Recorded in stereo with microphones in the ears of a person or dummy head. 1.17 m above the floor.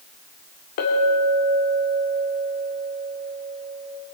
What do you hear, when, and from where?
0.8 s a clink: 55° left (ahead or behind), 1.9 m